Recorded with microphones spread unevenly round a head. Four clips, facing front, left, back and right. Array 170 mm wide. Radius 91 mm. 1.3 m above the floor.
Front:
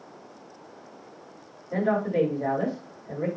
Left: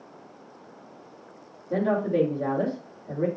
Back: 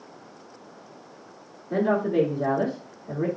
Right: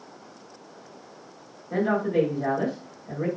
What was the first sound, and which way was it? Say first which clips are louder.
A woman speaking: right 1 dB, back 2 dB; 125° left.